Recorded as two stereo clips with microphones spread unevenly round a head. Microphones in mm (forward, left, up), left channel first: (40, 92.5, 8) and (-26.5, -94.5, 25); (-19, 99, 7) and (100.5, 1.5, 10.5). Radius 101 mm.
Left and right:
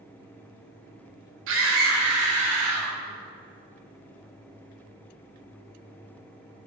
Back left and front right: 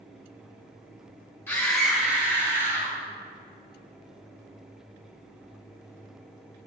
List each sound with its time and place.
1.5 s a scream: 140° right, 1.8 m; by 3.0 s 115° right, 3 m